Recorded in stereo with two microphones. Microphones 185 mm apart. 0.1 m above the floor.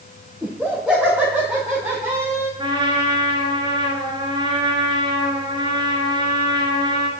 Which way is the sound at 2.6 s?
25° right (ahead or behind).